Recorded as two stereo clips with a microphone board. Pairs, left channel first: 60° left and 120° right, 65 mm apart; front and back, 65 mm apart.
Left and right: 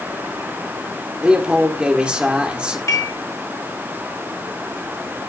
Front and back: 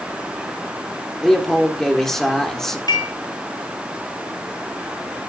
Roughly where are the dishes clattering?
Ahead.